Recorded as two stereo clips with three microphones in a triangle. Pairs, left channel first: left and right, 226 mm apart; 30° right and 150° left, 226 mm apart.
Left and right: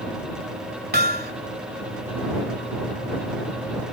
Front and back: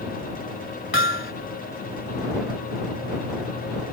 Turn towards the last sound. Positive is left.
turn(degrees=-50)